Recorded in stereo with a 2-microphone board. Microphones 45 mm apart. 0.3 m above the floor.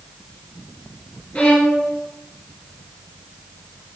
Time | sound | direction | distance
1.4 | a violin | 25° left (ahead or behind) | 0.7 m